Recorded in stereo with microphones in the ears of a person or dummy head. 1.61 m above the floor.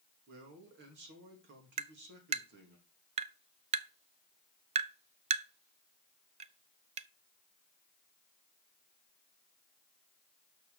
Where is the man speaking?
45° right (ahead or behind), 2.5 m.